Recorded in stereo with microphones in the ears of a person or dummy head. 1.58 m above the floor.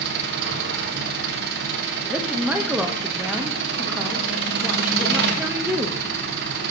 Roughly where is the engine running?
Right.